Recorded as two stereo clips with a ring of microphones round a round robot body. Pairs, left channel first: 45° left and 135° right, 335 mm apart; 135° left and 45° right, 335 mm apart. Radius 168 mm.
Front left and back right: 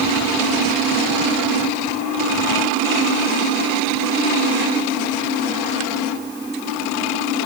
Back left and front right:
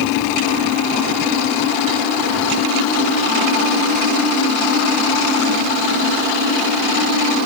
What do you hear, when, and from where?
Only background noise.